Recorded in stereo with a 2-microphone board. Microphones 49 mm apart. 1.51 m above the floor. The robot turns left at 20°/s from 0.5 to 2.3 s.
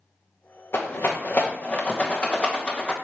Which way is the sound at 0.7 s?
50° left (ahead or behind).